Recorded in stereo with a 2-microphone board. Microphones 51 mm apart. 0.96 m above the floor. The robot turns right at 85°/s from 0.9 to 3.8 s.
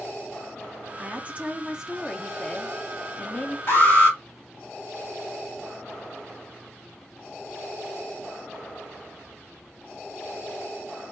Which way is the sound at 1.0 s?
30° right (ahead or behind).